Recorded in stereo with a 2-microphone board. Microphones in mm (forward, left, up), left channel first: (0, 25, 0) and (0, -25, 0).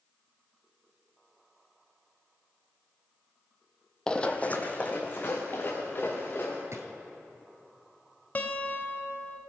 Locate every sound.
4.1 s running footsteps: 15° left (ahead or behind), 0.7 m; by 6.6 s 40° left (ahead or behind), 3 m
6.7 s a drawer: 70° right (ahead or behind), 1.3 m
8.3 s a guitar: 35° left (ahead or behind), 0.9 m